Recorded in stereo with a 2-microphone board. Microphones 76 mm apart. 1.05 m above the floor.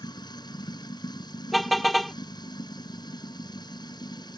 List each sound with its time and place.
0.0 s running water: 70° left (ahead or behind)
1.5 s a car horn: centre (ahead or behind)